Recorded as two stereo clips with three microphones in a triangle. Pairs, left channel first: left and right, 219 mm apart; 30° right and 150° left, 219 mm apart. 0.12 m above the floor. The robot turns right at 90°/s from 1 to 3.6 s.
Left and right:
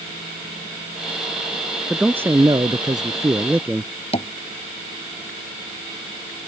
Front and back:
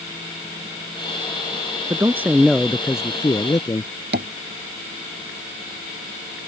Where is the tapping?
145° left.